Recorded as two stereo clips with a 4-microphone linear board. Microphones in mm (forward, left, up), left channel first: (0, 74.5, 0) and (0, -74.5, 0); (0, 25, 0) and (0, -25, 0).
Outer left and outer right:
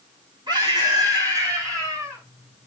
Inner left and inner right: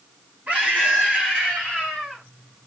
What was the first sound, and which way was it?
A scream, 30° right (ahead or behind).